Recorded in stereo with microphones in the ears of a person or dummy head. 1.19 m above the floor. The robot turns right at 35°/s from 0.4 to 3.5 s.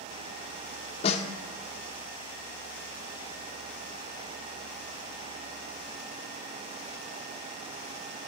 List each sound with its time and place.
1.0 s a snare drum: 35° left (ahead or behind), 0.7 m; by 1.2 s 40° left (ahead or behind), 0.7 m